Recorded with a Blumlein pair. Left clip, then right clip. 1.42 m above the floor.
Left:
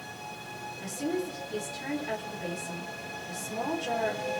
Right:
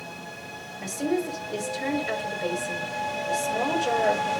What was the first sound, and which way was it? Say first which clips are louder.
A woman speaking: right 6 dB; 70° right.